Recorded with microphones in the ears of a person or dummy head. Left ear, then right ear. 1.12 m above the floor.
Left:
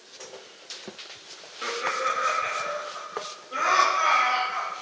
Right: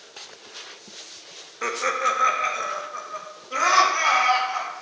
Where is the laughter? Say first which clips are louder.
Right 3 dB; 65° right (ahead or behind), 0.9 m.